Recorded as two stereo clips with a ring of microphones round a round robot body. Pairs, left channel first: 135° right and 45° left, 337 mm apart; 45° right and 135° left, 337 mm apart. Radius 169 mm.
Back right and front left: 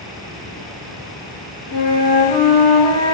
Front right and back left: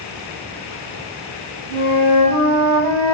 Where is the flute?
35° left, 5 m.